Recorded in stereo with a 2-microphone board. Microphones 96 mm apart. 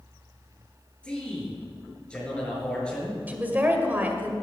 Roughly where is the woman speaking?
Centre.